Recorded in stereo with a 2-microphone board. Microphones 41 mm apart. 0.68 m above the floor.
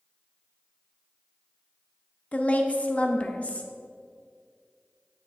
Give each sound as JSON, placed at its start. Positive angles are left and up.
{"t": 2.3, "sound": "a woman speaking", "side_deg": 35, "distance_m": 0.6}